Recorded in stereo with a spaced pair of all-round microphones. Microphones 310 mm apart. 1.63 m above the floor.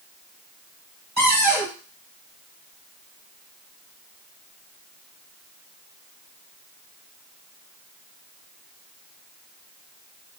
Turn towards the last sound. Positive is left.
turn(degrees=-30)  # may be behind; listen again after turning